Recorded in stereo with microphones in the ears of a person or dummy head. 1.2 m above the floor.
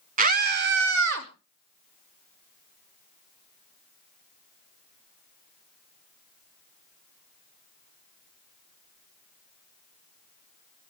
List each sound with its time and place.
0.2 s a scream: 45° right (ahead or behind), 1.5 m; by 1.3 s 75° right (ahead or behind), 2.5 m